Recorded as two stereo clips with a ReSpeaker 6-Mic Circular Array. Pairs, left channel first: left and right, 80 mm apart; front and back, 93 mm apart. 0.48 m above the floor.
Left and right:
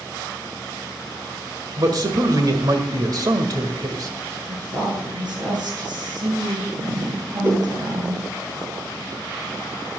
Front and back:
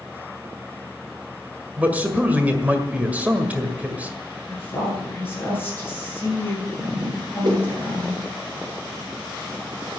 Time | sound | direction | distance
1.8 | a man speaking | 110° right | 1.7 m
4.5 | a woman speaking | 65° right | 8.5 m
7.4 | a whoosh | 150° right | 8 m